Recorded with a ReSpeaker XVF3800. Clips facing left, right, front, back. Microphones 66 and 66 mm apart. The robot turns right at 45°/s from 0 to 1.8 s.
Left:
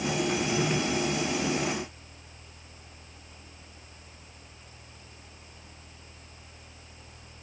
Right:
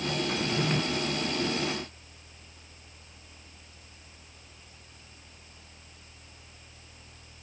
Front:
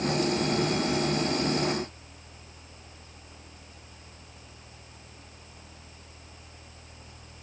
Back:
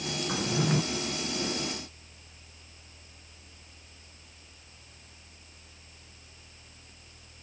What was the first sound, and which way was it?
A drawer, straight behind.